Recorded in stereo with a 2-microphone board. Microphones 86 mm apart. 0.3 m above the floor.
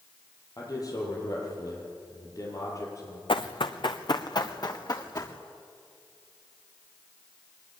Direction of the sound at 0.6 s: 45° left (ahead or behind).